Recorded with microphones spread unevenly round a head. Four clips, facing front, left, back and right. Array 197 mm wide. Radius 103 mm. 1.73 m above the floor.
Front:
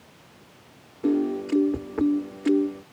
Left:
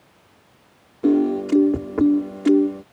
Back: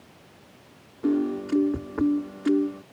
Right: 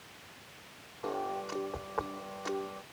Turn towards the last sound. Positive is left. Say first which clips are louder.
# left 18 dB, front 1 dB
turn(degrees=85)